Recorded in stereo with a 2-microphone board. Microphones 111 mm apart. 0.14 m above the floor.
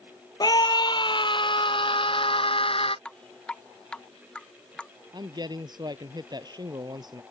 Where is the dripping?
10° left (ahead or behind).